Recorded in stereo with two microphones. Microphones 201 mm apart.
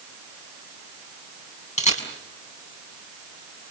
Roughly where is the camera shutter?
Left.